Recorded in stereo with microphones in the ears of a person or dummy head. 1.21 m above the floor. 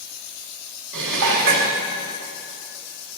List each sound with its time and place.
0.9 s dishes clattering: 65° right (ahead or behind), 2 m